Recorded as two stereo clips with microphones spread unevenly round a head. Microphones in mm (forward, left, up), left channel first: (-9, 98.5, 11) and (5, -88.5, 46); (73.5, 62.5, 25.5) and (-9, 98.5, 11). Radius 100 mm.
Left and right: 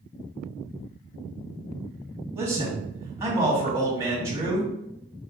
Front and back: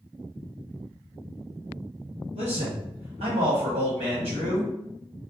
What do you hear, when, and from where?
2.4 s a man speaking: 160° right, 1.6 m